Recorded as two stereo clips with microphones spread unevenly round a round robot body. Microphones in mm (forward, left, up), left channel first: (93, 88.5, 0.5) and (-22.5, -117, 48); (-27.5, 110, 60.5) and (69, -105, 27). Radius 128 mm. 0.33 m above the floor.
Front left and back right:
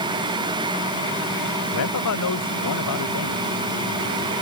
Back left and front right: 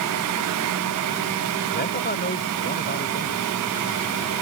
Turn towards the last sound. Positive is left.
turn(degrees=60)